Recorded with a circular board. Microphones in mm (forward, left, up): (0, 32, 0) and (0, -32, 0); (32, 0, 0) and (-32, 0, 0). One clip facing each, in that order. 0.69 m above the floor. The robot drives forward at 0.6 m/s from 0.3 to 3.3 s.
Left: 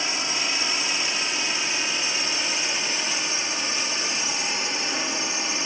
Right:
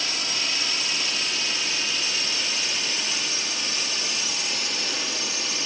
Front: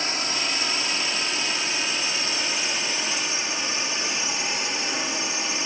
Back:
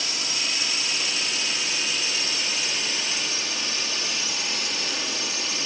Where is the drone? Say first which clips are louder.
Left 2 dB, front 4 dB; 35° left; by 5.7 s 45° left.